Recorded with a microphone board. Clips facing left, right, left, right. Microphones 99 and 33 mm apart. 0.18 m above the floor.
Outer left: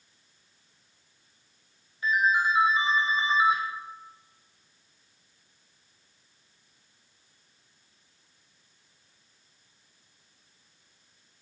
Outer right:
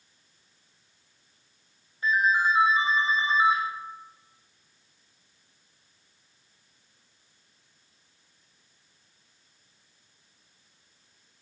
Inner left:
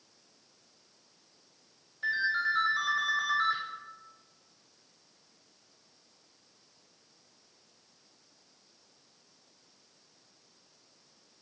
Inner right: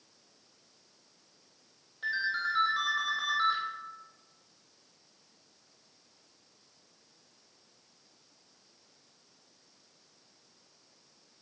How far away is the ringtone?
About 3 m.